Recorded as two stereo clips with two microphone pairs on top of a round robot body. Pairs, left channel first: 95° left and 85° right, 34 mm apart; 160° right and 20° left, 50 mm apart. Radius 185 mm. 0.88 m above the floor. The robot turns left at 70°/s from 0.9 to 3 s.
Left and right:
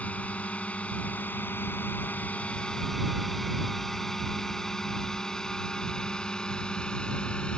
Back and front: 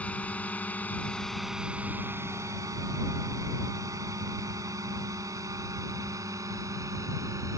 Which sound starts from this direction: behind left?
A drone, at 0.0 s.